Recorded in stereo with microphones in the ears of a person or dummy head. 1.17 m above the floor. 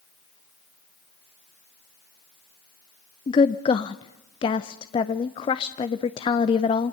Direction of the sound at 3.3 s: 30° left (ahead or behind).